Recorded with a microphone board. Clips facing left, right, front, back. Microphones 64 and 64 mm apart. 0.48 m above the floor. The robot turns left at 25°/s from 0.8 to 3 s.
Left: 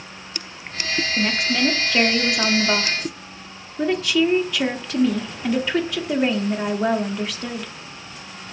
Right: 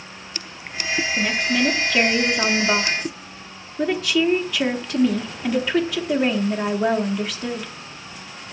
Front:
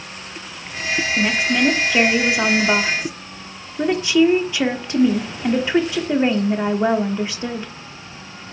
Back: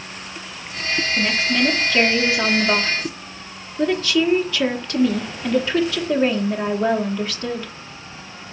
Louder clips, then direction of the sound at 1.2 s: Even, front 2 dB; 45° left.